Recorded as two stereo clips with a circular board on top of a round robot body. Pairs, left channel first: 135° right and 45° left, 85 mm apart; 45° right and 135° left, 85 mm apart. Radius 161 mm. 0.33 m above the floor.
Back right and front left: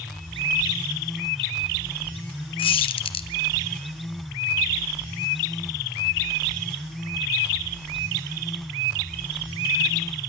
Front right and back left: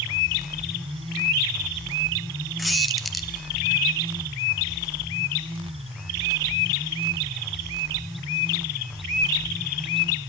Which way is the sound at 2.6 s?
135° right.